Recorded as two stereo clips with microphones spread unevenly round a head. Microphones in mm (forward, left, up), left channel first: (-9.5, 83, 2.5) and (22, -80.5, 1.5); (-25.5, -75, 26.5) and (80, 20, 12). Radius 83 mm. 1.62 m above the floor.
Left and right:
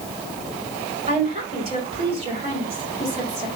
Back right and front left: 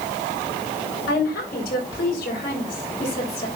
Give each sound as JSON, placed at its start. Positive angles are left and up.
{"t": 1.1, "sound": "a woman speaking", "azimuth_deg": -135, "distance_m": 6.0}